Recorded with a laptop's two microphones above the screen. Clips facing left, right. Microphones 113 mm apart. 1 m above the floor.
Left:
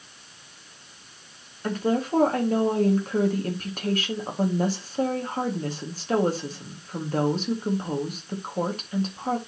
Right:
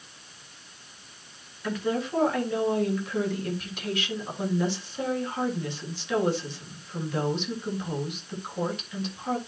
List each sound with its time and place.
1.6 s a woman speaking: 40° left (ahead or behind), 1.7 m